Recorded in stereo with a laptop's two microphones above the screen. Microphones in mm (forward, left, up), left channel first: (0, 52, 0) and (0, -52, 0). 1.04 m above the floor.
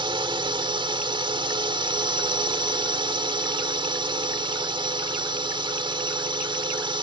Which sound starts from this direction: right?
A drone, at 0.0 s.